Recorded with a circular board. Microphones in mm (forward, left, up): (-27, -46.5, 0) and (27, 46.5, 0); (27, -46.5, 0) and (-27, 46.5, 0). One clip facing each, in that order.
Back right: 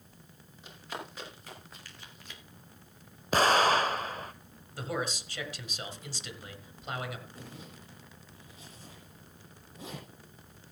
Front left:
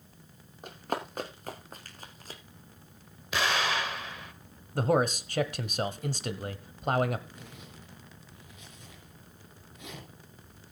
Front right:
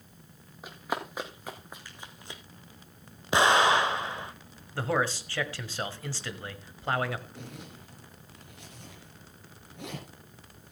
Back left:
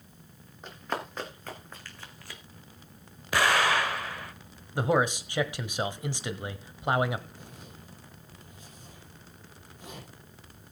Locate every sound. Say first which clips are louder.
0.6 s running footsteps: front left 8 dB, even; 25° left, 3.5 m; by 2.4 s 5° left, 1.3 m
3.3 s an explosion: back right 6 dB, front right 3 dB; 115° right, 0.8 m
4.8 s a man speaking: front left 9 dB, back left 3 dB; 50° left, 1.3 m
7.3 s a zipper: back right 1 dB, front right 4 dB; 65° right, 4 m